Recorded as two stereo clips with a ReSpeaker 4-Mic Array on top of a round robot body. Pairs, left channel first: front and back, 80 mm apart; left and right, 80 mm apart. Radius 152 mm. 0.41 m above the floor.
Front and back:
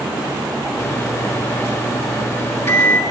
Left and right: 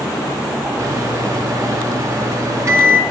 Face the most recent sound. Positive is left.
turn(degrees=-50)